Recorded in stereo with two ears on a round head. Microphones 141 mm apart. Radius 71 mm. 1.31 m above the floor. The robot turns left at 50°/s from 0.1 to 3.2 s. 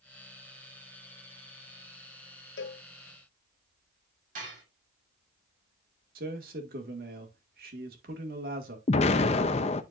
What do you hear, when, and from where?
2.6 s a cowbell: 75° left (ahead or behind), 1.1 m; by 2.8 s 65° left (ahead or behind), 1.1 m
4.3 s dishes clattering: 55° right (ahead or behind), 6 m
6.2 s a man speaking: 60° right (ahead or behind), 1.8 m
8.9 s an explosion: 40° left (ahead or behind), 0.6 m